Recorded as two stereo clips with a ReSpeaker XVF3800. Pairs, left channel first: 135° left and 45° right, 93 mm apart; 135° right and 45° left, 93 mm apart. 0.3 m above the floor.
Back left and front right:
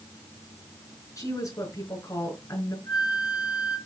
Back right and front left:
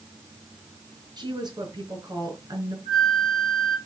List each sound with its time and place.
1.2 s a woman speaking: 80° left, 4.5 m
2.9 s a flute: 95° left, 6.5 m